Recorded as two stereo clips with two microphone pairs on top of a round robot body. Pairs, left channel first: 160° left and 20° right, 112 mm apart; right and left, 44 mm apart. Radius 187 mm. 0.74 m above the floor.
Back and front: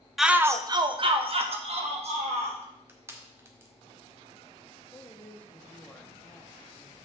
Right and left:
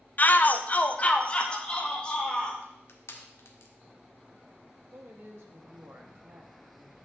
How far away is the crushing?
About 1.0 m.